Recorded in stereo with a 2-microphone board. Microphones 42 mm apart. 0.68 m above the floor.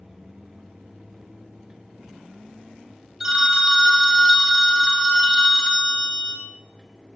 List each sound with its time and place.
3.2 s a phone ringing: 15° right (ahead or behind), 0.6 m